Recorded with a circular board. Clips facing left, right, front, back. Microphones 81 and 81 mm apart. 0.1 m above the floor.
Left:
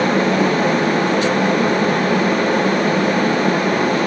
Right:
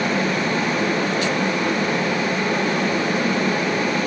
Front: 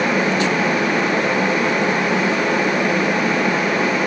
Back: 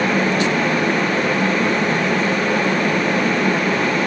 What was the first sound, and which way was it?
Only background noise.